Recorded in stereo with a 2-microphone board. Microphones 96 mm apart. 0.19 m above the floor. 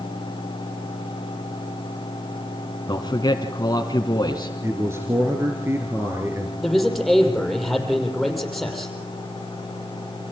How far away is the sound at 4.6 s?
About 2.5 m.